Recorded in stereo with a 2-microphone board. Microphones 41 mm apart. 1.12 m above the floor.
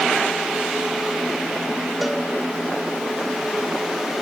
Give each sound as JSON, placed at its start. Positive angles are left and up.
{"t": 2.0, "sound": "a cowbell", "side_deg": 0, "distance_m": 1.6}